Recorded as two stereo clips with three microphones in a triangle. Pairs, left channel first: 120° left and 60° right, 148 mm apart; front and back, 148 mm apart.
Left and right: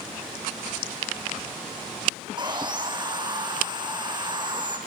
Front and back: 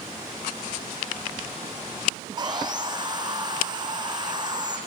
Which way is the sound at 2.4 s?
120° right.